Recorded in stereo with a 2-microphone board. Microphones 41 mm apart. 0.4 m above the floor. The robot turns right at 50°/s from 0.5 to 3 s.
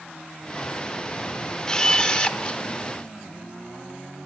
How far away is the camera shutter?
About 0.6 m.